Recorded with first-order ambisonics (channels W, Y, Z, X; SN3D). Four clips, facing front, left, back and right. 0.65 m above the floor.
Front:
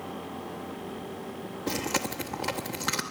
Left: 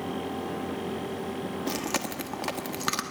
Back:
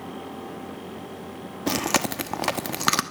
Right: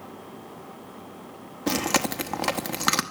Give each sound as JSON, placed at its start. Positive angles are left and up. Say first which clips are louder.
{"t": 1.7, "sound": "chewing", "louder": "right 9 dB, back 6 dB", "azimuth_deg": -150, "distance_m": 1.0}